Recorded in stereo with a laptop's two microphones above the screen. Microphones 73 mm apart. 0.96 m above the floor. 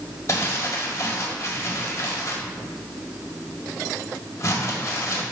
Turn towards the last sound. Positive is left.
turn(degrees=45)  # may be behind; listen again after turning